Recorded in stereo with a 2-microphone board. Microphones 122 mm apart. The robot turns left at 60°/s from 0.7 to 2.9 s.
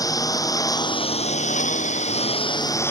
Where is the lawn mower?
150° left; by 2.9 s 20° left.